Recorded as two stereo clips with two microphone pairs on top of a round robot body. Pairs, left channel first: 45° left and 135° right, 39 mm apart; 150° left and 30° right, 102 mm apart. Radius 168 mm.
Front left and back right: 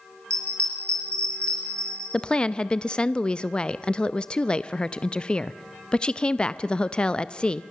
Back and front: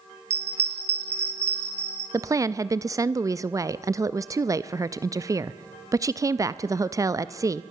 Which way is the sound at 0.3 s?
15° right.